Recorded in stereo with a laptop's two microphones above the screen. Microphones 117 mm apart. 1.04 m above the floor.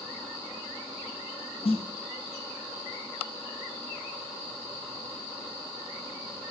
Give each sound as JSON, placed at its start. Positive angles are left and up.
{"t": 1.6, "sound": "a snare drum", "side_deg": 60, "distance_m": 0.5}